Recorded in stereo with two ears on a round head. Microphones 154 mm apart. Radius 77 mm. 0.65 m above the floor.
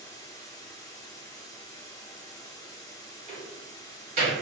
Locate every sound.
0.0 s running water: 20° left (ahead or behind), 0.8 m
3.3 s a door slam: 50° right (ahead or behind), 1.7 m